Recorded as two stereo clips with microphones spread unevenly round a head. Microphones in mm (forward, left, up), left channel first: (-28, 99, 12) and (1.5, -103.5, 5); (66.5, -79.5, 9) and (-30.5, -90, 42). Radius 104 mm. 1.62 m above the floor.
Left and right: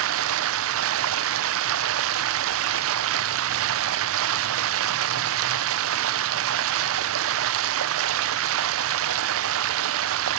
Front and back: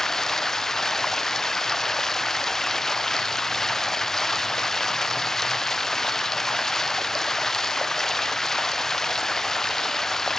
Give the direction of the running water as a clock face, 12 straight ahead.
3 o'clock.